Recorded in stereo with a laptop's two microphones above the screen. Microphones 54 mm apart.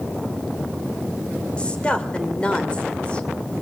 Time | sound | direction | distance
1.6 | a woman speaking | 20° left (ahead or behind) | 2.5 m